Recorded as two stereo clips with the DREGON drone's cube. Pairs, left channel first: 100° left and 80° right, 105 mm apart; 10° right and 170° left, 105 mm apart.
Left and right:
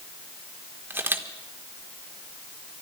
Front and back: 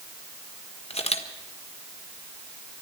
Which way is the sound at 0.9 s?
10° right.